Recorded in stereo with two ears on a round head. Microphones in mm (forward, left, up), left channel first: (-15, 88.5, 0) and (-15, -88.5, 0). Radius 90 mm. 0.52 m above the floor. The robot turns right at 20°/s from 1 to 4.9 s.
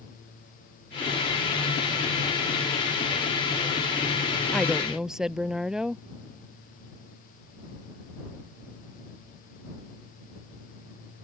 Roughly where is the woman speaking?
Centre.